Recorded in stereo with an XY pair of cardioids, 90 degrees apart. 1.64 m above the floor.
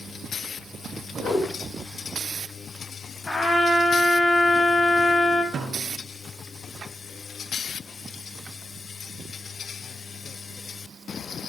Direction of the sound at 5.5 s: 60° right.